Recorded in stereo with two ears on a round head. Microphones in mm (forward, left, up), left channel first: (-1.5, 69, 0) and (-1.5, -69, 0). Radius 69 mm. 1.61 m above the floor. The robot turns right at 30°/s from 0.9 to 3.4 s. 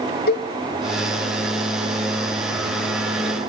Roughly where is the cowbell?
Left.